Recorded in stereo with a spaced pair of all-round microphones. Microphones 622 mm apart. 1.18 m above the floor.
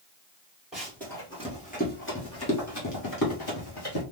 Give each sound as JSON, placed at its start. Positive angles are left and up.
{"t": 0.7, "sound": "running footsteps", "side_deg": 0, "distance_m": 1.5}